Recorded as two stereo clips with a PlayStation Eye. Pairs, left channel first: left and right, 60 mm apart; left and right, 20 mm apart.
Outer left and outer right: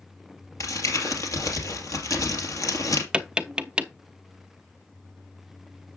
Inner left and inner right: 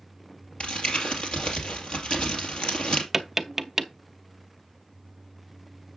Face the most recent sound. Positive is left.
turn(degrees=-15)  # may be behind; listen again after turning